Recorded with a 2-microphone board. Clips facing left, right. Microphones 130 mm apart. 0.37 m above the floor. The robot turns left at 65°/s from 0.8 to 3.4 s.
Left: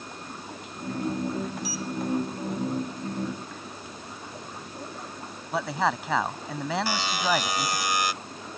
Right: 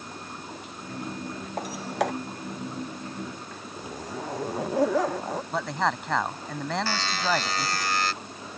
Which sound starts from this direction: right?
A zipper, at 3.8 s.